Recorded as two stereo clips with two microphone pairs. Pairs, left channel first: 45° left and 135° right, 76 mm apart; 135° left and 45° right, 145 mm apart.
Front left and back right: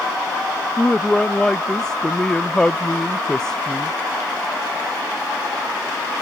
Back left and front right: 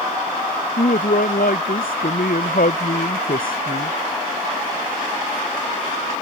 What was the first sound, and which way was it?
A man speaking, 130° left.